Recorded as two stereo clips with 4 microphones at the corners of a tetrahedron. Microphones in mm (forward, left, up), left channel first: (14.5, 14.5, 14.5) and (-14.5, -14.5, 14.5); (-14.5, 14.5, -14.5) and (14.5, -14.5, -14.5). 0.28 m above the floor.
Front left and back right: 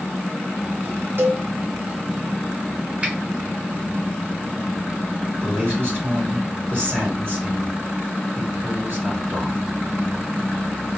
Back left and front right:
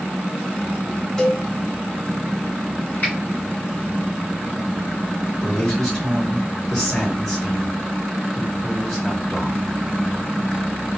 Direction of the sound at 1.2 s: 150° right.